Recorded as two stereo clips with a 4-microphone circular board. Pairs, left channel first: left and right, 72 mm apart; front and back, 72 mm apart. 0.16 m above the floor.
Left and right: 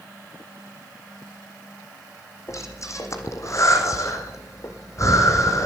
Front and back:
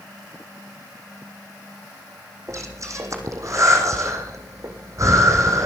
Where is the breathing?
135° left, 1.7 m.